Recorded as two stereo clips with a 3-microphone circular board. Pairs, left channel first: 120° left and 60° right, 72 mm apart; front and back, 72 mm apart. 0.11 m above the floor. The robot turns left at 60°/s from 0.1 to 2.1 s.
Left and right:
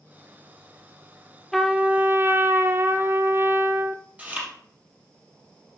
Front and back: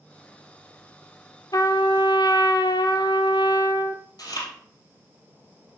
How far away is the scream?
No scream in this recording.